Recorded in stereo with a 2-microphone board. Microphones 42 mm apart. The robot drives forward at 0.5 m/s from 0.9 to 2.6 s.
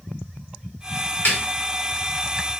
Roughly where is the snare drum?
Left.